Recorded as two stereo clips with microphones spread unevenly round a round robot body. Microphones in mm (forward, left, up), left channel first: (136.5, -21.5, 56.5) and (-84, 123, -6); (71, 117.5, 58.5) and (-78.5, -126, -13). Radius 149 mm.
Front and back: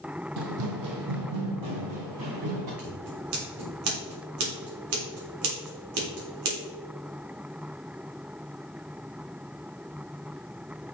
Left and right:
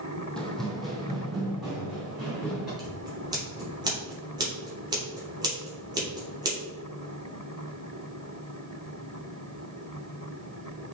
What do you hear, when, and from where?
0.4 s running footsteps: 135° left, 1.3 m; by 2.7 s 150° left, 4 m
2.8 s scissors: 170° left, 3 m